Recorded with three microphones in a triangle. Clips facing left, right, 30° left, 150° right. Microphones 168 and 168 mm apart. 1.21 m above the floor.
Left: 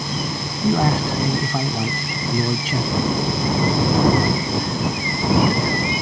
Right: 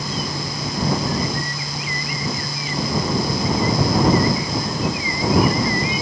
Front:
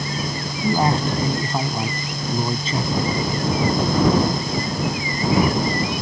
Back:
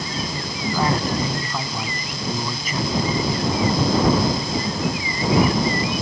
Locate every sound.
0.6 s a man speaking: 95° left